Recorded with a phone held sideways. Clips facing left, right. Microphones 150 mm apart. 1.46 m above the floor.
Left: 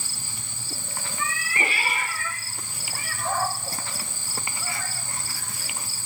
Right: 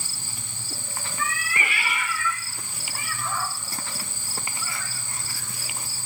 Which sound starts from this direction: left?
A cat meowing, at 1.2 s.